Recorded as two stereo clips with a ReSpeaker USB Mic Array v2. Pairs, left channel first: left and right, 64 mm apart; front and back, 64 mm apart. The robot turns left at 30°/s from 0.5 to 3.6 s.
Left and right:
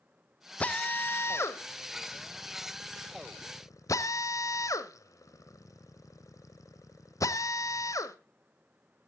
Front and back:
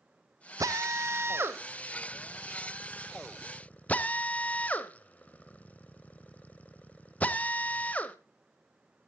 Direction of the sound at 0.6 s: 155° left.